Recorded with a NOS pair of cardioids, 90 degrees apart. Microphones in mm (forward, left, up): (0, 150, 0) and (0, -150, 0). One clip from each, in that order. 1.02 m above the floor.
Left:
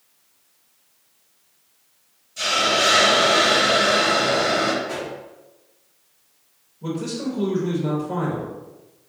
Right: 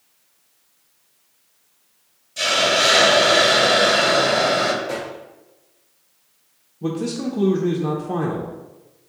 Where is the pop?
70° right, 2 m.